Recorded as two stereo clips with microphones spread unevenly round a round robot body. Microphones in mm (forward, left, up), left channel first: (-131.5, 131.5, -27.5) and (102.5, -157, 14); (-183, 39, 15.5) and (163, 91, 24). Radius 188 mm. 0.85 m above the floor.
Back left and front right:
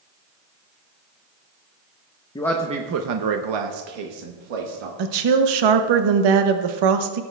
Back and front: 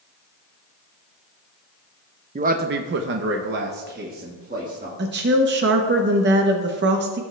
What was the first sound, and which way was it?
A man speaking, 70° left.